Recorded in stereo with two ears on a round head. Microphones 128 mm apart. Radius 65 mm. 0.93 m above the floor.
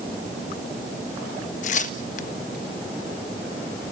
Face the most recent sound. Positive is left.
turn(degrees=55)  # may be behind; listen again after turning